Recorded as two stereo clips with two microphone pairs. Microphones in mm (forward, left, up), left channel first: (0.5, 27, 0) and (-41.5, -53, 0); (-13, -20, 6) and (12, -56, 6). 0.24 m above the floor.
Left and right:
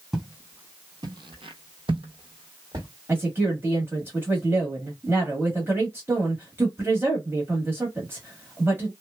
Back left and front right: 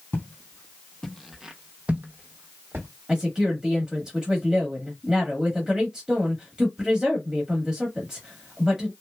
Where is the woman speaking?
105° right, 1.2 m.